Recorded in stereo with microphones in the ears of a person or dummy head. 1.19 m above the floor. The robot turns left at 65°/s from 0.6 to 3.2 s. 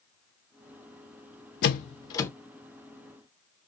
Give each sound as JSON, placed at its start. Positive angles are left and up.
{"t": 1.6, "sound": "a door slam", "side_deg": 55, "distance_m": 0.5}